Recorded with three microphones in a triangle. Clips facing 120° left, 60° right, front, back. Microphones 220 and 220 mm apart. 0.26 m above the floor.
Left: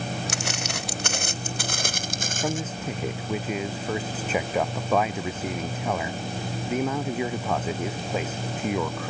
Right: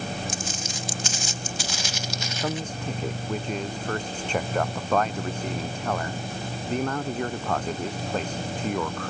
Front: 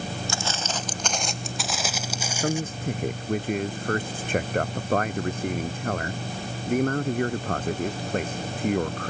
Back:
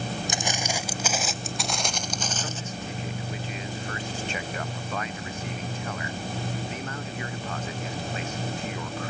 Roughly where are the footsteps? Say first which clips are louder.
Left 2 dB, back 1 dB; left.